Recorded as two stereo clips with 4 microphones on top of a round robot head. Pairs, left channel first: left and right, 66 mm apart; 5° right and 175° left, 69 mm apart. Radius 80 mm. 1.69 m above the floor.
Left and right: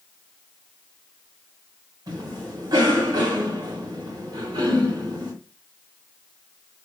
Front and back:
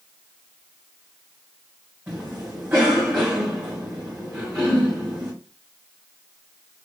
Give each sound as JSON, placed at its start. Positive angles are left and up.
{"t": 2.1, "sound": "a cough", "azimuth_deg": -115, "distance_m": 3.0}